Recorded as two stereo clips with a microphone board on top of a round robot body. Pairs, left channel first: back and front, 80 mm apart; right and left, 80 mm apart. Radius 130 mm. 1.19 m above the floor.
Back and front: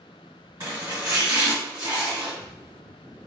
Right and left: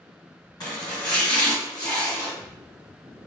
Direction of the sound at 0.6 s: 45° right.